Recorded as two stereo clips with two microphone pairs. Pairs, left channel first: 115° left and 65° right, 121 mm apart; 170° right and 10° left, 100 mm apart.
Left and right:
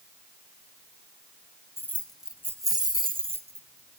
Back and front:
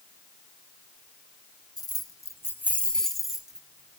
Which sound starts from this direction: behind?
Keys jangling, at 1.8 s.